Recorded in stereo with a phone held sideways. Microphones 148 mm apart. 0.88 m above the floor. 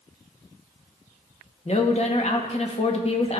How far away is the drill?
No drill in this recording.